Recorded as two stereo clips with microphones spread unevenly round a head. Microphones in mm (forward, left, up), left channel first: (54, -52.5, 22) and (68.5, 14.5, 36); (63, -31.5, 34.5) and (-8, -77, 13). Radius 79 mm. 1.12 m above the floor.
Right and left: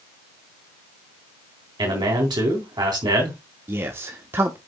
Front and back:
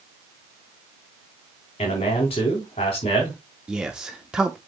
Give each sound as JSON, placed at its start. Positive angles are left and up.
{"t": 1.8, "sound": "a man speaking", "azimuth_deg": 65, "distance_m": 3.5}
{"t": 3.7, "sound": "a man speaking", "azimuth_deg": 145, "distance_m": 0.8}